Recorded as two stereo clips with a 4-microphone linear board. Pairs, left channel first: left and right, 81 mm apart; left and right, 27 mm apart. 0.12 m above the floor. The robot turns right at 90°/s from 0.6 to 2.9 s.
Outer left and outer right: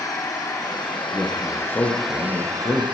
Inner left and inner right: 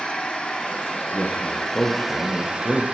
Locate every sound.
0.0 s an engine running: 50° left, 5 m; by 3.0 s 100° right, 5 m
1.1 s a man speaking: 25° right, 3 m; by 2.9 s 130° left, 3 m